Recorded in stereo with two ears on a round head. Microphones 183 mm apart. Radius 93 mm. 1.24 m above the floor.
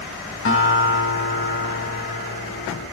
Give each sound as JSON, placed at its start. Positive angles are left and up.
{"t": 0.5, "sound": "a guitar", "side_deg": 75, "distance_m": 4.5}